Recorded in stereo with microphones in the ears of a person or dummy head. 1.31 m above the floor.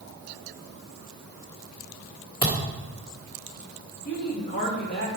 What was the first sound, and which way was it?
A thud, 20° left (ahead or behind).